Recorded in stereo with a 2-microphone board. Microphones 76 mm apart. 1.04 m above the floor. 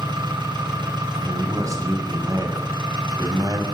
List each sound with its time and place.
0.0 s an engine running: 85° right, 9.5 m
1.2 s a man speaking: 45° right (ahead or behind), 6 m